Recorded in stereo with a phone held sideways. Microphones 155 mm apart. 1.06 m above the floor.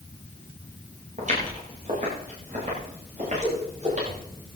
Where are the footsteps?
50° right (ahead or behind), 8.5 m.